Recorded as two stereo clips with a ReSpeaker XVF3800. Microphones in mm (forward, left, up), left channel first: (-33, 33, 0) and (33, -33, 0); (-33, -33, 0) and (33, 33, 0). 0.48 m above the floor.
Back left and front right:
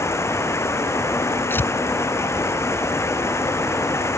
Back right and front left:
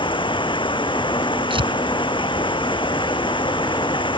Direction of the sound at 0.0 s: 165° right.